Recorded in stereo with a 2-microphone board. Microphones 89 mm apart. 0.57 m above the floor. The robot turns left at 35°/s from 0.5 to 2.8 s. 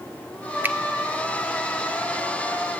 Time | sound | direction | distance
0.6 | a finger snap | 25° right (ahead or behind) | 0.5 m